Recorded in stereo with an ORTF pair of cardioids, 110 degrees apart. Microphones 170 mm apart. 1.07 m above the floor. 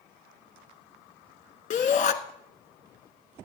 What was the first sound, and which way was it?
A shout, 45° left.